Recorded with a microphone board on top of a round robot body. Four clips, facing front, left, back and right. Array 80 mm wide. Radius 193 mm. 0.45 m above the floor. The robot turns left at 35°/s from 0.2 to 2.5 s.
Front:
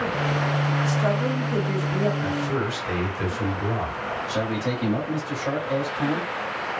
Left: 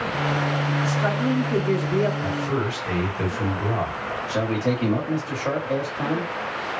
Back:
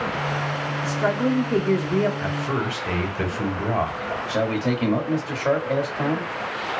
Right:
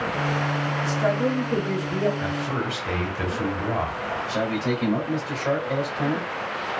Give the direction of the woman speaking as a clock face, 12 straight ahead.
5 o'clock.